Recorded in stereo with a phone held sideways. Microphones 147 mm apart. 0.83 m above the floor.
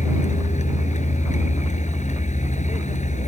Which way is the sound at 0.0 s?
55° left (ahead or behind).